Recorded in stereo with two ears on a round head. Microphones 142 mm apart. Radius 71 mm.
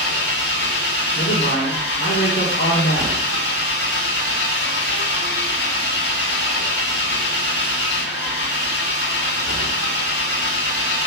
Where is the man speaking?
70° left (ahead or behind), 1.9 m.